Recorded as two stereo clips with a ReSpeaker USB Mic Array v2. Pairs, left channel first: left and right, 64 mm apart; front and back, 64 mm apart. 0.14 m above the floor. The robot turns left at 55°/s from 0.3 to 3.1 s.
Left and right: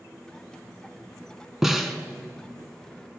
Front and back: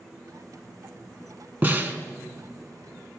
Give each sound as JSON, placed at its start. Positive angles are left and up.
{"t": 1.6, "sound": "a snare drum", "azimuth_deg": -170, "distance_m": 1.0}